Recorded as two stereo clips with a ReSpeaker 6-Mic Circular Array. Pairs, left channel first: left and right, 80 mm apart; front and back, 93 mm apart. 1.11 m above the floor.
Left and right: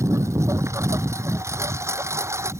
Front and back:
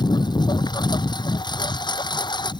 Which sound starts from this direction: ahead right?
A lawn mower, at 0.0 s.